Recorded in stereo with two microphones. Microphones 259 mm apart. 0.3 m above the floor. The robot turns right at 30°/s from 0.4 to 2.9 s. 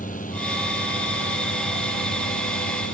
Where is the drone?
30° left; by 2.9 s 105° left.